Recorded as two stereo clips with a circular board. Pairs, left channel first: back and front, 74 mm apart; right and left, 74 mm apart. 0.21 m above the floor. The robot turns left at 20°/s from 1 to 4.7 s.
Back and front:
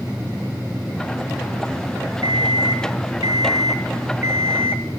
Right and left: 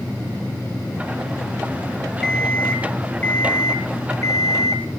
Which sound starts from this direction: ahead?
An alarm clock, at 2.2 s.